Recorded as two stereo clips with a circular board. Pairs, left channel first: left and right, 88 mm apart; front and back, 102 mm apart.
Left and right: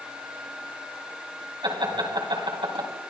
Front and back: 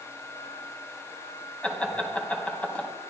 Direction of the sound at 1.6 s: 75° right.